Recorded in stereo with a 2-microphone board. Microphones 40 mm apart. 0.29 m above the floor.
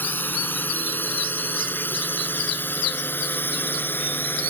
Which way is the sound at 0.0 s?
55° left (ahead or behind).